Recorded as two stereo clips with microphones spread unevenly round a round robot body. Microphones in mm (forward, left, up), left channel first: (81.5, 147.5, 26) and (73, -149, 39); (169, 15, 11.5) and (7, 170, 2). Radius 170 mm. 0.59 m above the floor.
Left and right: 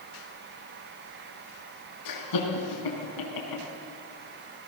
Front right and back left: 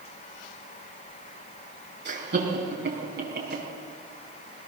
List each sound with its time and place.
2.0 s laughter: 95° left, 4.5 m